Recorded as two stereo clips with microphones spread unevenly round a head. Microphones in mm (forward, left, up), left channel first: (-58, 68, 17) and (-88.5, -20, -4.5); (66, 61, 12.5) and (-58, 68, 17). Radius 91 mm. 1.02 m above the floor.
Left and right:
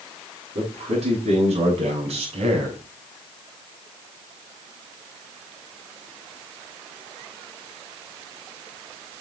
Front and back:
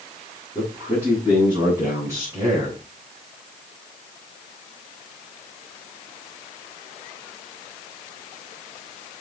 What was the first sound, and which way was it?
A man speaking, 105° right.